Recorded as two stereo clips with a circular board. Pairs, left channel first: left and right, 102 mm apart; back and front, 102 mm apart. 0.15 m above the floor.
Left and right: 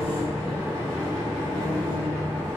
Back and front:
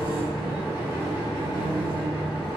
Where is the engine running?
160° right, 1.7 m.